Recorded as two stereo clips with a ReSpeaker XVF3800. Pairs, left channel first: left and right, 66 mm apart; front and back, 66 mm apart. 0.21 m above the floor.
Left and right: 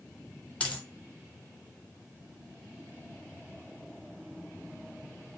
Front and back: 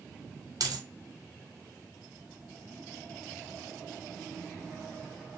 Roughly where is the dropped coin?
Behind.